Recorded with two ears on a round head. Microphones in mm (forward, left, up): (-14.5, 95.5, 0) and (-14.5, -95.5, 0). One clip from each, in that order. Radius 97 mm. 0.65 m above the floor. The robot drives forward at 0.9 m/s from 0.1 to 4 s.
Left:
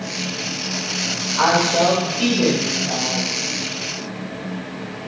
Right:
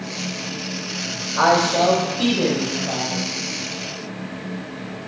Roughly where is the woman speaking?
Right.